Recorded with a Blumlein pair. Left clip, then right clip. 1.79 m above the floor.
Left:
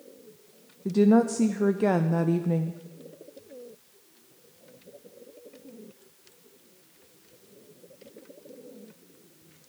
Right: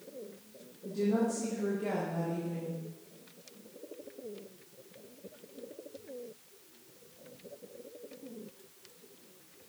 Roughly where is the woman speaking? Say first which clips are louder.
Left 9 dB; ahead left.